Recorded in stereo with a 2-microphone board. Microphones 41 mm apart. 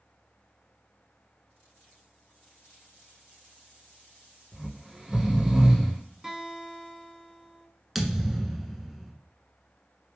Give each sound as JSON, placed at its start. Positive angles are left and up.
{"t": 4.5, "sound": "snoring", "side_deg": -20, "distance_m": 1.2}
{"t": 6.2, "sound": "a guitar", "side_deg": -15, "distance_m": 1.3}
{"t": 8.0, "sound": "a thud", "side_deg": -5, "distance_m": 0.7}